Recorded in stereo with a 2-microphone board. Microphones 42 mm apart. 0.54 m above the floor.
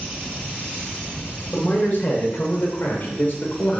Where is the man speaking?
45° left (ahead or behind), 2 m; by 3.8 s 50° left (ahead or behind), 1.8 m.